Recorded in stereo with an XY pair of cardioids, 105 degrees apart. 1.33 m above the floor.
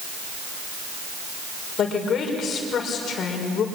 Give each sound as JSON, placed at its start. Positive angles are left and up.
{"t": 1.8, "sound": "a woman speaking", "azimuth_deg": 60, "distance_m": 5.5}